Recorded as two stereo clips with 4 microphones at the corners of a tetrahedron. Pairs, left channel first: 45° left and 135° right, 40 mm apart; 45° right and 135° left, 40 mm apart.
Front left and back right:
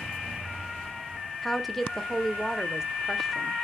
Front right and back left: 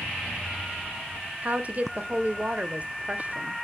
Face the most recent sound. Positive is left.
turn(degrees=125)